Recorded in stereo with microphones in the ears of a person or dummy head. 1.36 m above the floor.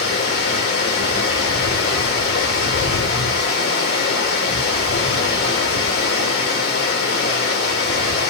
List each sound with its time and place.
0.0 s running water: 50° left (ahead or behind), 1.3 m